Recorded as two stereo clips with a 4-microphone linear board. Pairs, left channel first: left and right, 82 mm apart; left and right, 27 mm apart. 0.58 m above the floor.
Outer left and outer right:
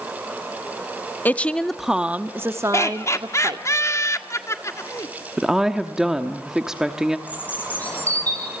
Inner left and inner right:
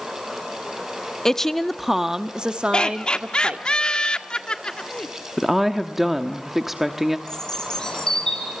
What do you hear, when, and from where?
1.2 s a woman speaking: 20° left (ahead or behind), 0.7 m; by 3.7 s 55° right (ahead or behind), 1.3 m
2.7 s laughter: 35° left (ahead or behind), 1.5 m
5.4 s a woman speaking: 10° right (ahead or behind), 1.1 m
7.3 s a bird: 20° left (ahead or behind), 4.5 m